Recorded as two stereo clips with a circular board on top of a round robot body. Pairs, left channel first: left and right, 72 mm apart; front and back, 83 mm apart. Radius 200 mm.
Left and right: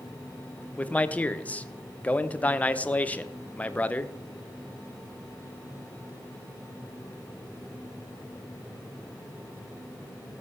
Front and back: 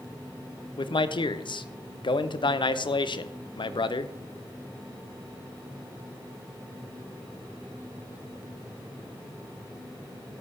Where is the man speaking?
20° left, 0.8 m.